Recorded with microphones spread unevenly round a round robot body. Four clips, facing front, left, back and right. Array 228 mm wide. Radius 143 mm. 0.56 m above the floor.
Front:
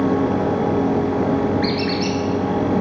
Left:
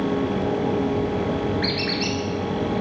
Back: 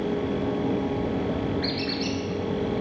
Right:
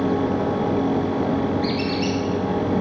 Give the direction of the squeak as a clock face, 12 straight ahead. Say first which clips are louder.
Right 3 dB, front 8 dB; 10 o'clock.